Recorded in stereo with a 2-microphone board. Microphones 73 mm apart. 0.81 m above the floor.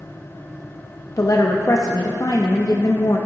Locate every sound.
1.2 s a woman speaking: 50° left (ahead or behind), 0.5 m